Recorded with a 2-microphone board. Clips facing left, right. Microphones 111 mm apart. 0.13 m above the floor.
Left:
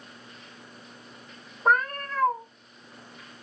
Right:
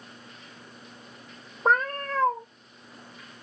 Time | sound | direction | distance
1.6 | a cat meowing | 25° right (ahead or behind) | 0.9 m